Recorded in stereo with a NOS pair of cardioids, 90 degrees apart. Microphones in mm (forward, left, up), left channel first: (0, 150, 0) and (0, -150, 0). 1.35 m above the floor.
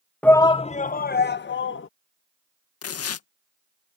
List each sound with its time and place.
0.2 s a shout: 5° left; by 1.9 s 40° left
2.8 s tearing paper: 55° left